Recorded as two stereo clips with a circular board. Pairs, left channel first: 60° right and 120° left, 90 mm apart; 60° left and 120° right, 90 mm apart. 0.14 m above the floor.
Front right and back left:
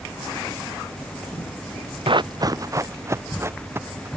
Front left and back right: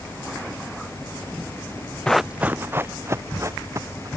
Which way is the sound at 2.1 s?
140° left.